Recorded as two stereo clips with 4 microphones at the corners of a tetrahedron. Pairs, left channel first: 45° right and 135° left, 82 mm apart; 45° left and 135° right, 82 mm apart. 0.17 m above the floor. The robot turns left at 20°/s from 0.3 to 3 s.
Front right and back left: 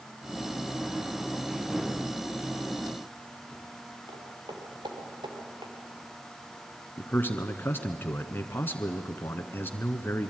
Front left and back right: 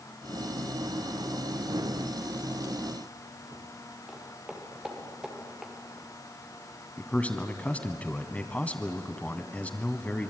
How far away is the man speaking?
About 1.3 m.